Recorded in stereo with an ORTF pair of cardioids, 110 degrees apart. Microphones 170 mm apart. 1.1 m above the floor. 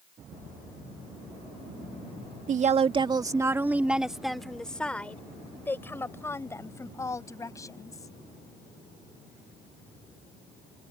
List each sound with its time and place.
2.5 s a woman speaking: 50° right; by 8.1 s 20° left